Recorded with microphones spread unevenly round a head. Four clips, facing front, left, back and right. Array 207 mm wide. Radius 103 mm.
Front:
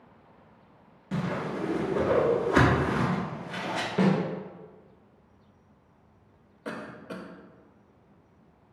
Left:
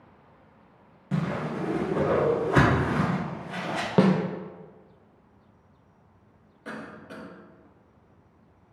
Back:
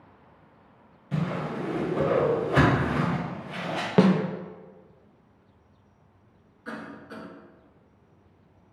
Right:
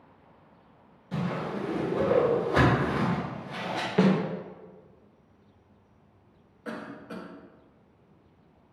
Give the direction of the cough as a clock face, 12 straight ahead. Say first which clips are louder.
Right 1 dB, front 1 dB; 12 o'clock.